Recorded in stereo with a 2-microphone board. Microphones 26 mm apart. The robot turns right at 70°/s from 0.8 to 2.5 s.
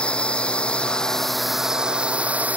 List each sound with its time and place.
0.0 s a drone: 135° left; by 2.6 s 105° right